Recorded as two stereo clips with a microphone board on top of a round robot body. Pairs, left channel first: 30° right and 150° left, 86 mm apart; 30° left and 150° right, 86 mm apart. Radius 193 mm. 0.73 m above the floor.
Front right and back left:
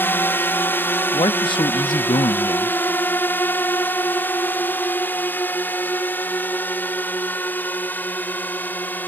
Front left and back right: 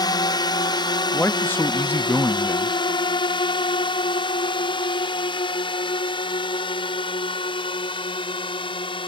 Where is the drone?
30° left; by 9.1 s 40° left.